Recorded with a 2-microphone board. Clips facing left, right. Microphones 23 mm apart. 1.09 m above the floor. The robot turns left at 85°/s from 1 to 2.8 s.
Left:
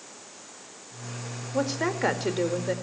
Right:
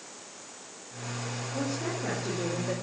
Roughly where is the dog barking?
No dog barking in this recording.